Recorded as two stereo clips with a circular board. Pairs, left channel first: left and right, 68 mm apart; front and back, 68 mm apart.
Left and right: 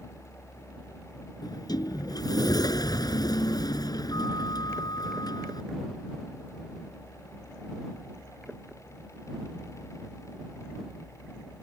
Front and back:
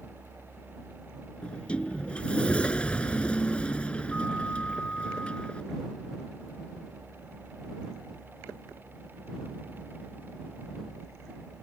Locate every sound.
1.4 s a sliding door: 70° left